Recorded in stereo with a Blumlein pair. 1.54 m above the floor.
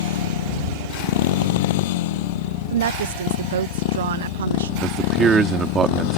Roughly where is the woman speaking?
Ahead right.